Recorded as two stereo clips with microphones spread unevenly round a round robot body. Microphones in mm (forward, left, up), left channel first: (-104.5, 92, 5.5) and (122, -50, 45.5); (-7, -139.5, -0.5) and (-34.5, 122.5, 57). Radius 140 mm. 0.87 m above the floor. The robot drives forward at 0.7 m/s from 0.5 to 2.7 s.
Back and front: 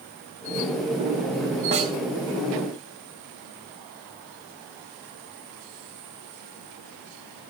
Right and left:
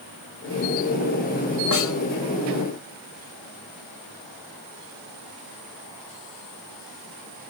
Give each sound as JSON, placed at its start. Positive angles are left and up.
{"t": 1.7, "sound": "a snare drum", "azimuth_deg": -100, "distance_m": 3.0}